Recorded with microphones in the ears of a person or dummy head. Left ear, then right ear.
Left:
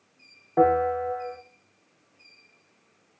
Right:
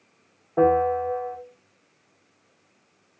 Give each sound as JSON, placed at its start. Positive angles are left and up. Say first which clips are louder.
{"t": 0.6, "sound": "a bell", "louder": "right 1 dB", "side_deg": 30, "distance_m": 1.6}